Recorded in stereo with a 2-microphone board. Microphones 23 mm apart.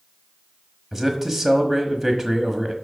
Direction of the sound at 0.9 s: 20° right (ahead or behind).